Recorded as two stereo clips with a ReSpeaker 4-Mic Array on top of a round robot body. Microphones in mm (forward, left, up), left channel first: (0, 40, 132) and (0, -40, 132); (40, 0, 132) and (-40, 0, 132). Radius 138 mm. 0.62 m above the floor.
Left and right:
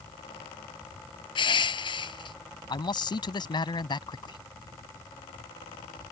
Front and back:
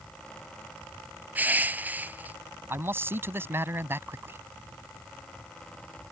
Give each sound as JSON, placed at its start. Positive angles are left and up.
{"t": 1.4, "sound": "crushing", "azimuth_deg": 110}
{"t": 2.7, "sound": "a man speaking", "azimuth_deg": 120}